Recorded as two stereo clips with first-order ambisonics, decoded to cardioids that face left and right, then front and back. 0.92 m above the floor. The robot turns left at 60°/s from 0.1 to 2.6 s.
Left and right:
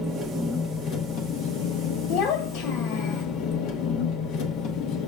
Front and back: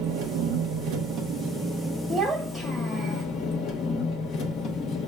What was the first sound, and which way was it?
An engine running, 160° right.